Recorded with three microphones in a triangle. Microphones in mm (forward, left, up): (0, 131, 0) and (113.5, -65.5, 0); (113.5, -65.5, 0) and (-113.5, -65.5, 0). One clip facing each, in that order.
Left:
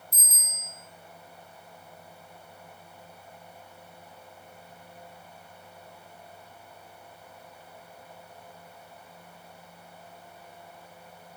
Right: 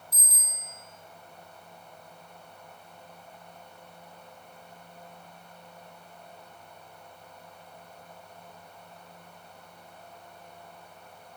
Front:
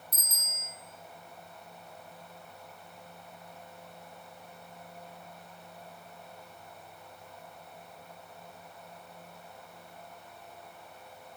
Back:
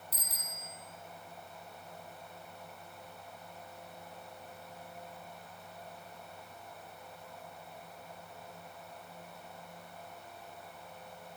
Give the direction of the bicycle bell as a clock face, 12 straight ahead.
9 o'clock.